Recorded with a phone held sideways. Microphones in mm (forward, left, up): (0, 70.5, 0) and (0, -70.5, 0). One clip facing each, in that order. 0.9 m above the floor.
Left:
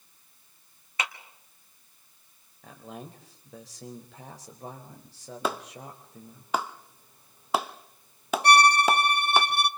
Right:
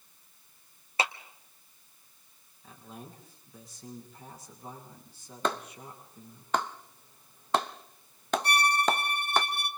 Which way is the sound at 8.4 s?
70° left (ahead or behind).